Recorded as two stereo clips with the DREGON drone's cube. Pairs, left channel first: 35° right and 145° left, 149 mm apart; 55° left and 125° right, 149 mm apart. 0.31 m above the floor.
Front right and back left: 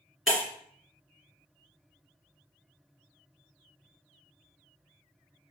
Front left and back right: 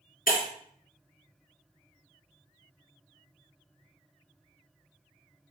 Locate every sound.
0.3 s breaking glass: 60° left, 2.5 m